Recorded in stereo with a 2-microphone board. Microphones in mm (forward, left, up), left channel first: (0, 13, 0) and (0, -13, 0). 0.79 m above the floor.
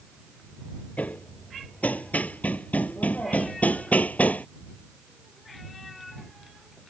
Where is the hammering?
75° left (ahead or behind).